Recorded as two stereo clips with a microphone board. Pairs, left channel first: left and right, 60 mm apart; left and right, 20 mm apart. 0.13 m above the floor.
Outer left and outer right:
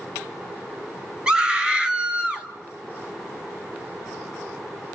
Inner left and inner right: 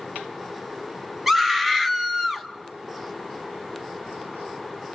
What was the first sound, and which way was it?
A scream, 15° right (ahead or behind).